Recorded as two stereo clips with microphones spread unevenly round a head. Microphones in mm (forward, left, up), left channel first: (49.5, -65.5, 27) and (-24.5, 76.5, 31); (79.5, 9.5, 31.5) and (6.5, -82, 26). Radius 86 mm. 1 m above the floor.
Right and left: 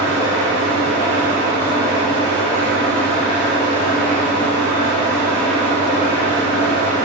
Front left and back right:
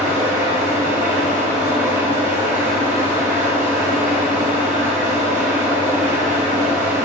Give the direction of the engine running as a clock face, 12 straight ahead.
4 o'clock.